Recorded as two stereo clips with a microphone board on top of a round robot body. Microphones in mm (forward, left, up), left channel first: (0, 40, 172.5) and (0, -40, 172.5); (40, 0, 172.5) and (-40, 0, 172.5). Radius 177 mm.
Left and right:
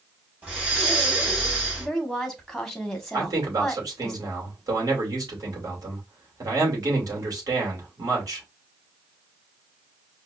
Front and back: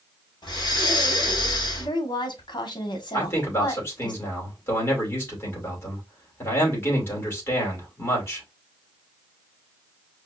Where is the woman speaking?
Straight ahead, 1.5 m.